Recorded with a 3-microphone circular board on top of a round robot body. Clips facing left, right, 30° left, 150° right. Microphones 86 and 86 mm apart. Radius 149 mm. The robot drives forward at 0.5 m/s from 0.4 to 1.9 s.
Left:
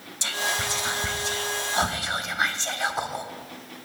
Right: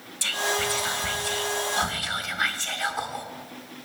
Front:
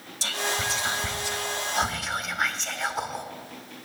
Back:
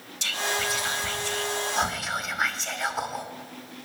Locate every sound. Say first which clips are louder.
0.2 s whispering: right 2 dB, even; 35° left, 1.2 m; by 3.2 s 125° left, 1.1 m